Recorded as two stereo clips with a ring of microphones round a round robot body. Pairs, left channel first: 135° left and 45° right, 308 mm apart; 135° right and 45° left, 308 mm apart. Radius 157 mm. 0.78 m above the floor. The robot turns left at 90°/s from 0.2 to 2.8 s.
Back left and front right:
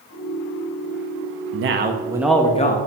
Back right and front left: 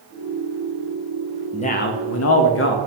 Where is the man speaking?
65° right, 0.7 m; by 2.8 s 175° right, 0.7 m.